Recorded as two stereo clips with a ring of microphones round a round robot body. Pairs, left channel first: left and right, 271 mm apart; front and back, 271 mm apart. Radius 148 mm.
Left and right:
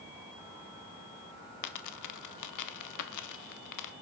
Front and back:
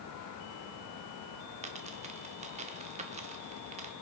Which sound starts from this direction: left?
A dropped coin, at 1.6 s.